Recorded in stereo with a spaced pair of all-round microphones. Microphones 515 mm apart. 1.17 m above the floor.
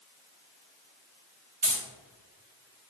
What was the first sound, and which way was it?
Keys jangling, 55° right (ahead or behind).